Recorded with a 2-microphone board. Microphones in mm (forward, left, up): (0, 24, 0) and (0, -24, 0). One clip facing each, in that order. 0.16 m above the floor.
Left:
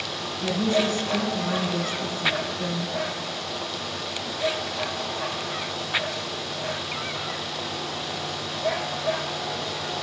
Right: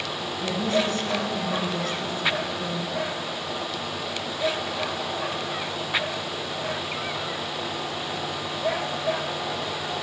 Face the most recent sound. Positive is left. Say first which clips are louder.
# left 2 dB
turn(degrees=40)  # may be behind; listen again after turning